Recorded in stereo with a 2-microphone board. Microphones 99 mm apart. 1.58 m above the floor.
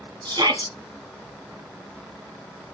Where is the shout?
50° right (ahead or behind), 3.5 m.